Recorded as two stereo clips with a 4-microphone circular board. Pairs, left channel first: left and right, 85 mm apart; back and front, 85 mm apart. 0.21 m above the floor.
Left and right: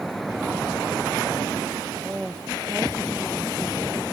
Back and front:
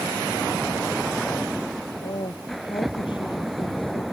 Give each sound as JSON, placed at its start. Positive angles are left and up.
{"t": 2.0, "sound": "a woman speaking", "azimuth_deg": -170}